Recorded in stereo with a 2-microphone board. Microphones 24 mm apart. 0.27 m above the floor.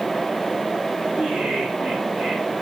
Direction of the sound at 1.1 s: 80° right.